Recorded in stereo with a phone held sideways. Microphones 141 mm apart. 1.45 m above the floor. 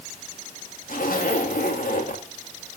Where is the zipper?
80° left, 2.0 m.